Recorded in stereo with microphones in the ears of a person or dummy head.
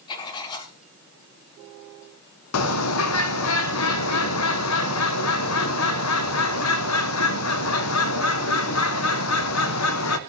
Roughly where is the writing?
Left.